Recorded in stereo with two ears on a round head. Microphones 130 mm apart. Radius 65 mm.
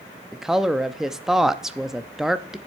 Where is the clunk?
No clunk in this recording.